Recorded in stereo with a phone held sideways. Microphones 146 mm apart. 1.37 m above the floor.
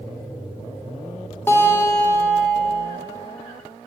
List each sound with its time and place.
1.5 s a guitar: 15° left (ahead or behind), 3 m